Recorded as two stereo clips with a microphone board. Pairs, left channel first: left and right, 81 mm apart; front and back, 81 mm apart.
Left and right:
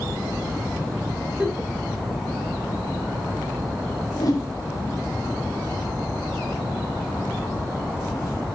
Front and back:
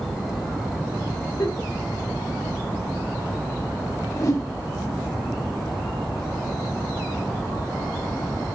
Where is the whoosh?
50° left, 0.7 m.